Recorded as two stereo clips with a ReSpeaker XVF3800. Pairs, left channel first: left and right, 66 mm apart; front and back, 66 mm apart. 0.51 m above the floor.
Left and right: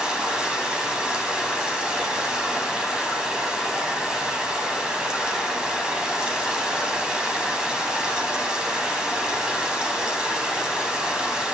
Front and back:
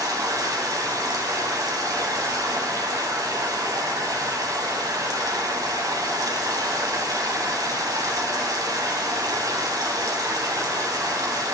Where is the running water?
165° right, 2.5 m.